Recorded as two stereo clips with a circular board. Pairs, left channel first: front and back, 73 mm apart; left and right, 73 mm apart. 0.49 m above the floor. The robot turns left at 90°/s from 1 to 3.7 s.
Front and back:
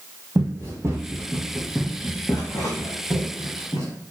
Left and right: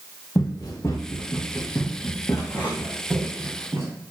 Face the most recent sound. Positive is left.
turn(degrees=-35)